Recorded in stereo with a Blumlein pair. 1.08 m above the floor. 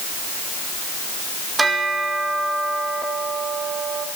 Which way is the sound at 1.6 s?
10° right.